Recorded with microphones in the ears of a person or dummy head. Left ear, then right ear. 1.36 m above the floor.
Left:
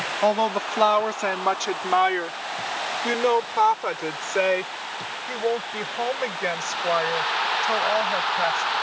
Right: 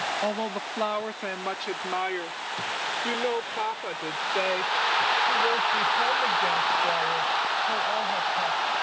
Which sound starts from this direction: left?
A woman speaking, at 0.2 s.